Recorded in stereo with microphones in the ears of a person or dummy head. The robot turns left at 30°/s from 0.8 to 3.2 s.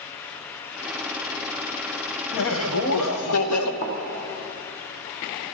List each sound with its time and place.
2.3 s laughter: 60° left (ahead or behind), 1.1 m; by 3.7 s 85° left, 1.1 m
3.8 s a thud: 40° left (ahead or behind), 2 m